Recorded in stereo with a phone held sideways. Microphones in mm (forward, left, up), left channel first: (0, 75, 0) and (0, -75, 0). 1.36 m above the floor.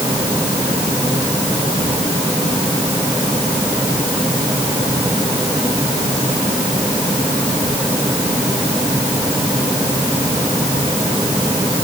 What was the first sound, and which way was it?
Only background noise.